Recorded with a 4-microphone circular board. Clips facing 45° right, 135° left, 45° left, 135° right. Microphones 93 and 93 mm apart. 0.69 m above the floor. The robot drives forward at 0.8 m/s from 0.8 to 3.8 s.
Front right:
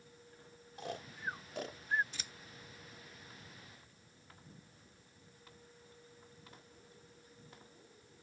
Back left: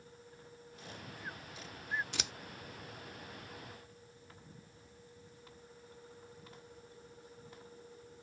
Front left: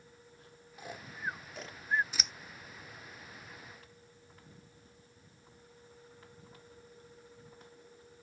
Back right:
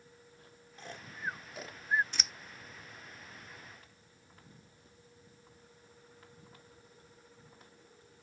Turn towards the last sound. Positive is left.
turn(degrees=165)